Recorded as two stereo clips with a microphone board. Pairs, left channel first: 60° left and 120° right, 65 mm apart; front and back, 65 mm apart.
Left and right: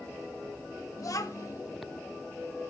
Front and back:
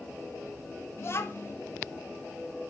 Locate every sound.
1.0 s a child speaking: 40° left, 1.7 m